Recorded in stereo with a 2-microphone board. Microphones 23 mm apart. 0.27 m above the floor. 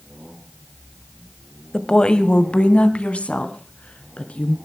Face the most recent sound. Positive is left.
turn(degrees=75)  # may be behind; listen again after turning